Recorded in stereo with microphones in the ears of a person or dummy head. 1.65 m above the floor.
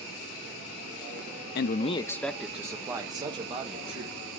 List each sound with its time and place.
1.6 s a man speaking: 60° left (ahead or behind), 0.5 m; by 4.2 s 30° right (ahead or behind), 2 m